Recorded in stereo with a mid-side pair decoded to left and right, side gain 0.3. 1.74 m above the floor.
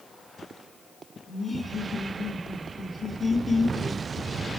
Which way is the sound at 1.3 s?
15° left.